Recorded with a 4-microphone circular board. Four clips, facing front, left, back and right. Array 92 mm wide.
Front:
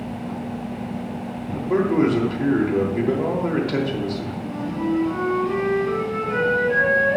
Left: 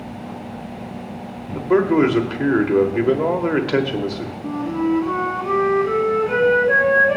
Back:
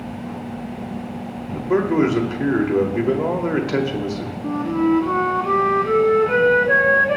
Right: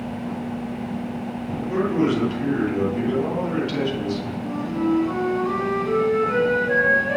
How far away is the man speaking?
About 2 m.